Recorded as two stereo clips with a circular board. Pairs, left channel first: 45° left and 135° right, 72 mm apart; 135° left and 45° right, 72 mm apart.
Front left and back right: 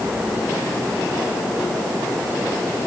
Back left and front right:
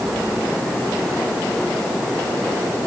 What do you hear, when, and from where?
Only background noise.